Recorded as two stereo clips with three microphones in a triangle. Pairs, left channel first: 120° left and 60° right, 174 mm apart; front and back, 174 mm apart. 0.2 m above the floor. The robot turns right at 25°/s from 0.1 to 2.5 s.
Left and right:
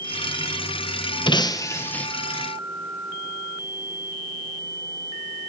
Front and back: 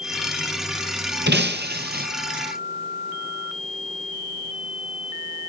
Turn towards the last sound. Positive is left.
turn(degrees=-145)